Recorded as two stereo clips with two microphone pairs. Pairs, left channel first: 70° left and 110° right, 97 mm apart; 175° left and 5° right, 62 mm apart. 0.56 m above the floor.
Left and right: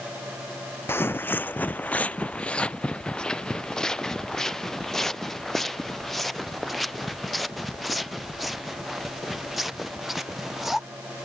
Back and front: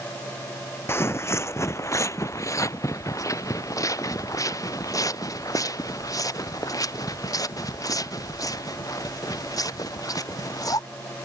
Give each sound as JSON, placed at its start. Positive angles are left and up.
{"t": 0.9, "sound": "footsteps", "azimuth_deg": 135}